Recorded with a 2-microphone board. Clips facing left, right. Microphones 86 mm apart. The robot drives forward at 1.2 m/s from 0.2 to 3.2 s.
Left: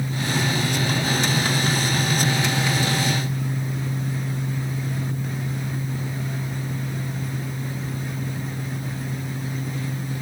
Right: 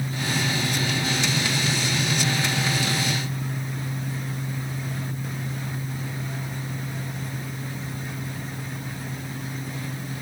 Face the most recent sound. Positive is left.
No sound to turn to.